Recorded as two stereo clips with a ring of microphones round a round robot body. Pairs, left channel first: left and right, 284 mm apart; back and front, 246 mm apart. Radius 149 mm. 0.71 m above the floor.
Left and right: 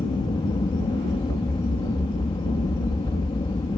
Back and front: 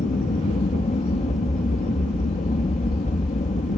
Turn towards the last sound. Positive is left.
turn(degrees=150)